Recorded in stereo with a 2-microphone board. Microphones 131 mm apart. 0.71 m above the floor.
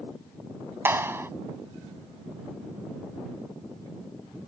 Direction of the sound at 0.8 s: 20° right (ahead or behind).